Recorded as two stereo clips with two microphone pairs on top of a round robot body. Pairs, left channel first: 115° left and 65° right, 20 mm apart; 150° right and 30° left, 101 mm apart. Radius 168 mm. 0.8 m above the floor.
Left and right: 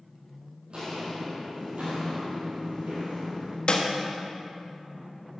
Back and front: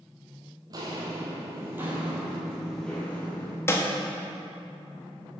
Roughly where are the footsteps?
Ahead.